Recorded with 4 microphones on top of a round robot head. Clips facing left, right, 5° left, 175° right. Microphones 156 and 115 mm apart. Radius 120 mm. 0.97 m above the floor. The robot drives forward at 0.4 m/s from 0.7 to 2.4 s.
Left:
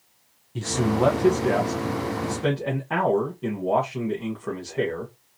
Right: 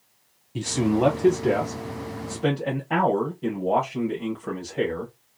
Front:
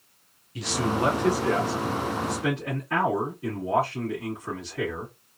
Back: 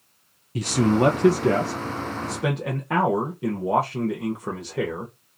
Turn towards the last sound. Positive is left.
turn(degrees=-175)